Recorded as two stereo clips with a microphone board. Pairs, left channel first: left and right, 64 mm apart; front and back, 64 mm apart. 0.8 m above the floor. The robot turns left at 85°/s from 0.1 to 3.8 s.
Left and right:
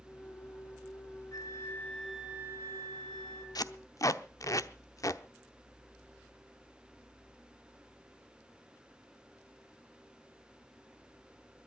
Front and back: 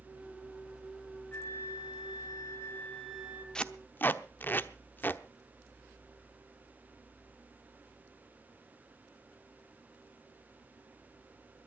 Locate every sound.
1.3 s a flute: 65° left, 2 m; by 3.5 s 115° right, 2 m
3.5 s tape being pulled: 80° left, 0.8 m; by 5.2 s 55° left, 0.8 m